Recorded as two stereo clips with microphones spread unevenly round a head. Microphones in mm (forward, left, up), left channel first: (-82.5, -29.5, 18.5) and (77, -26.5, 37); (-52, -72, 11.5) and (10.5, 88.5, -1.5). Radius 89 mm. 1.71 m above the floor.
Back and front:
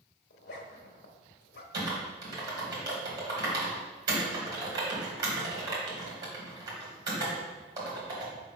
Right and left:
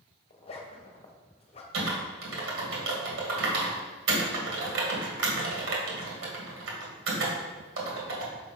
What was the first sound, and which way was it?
A zipper, 170° right.